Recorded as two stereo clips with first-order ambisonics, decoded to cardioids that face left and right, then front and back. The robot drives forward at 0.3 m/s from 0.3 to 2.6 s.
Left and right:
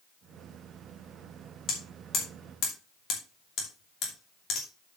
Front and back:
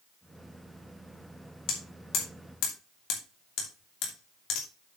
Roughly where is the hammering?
Ahead left.